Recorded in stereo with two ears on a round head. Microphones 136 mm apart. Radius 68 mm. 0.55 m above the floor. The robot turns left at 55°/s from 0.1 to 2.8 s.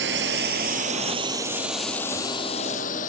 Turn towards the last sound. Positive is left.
turn(degrees=55)  # may be behind; listen again after turning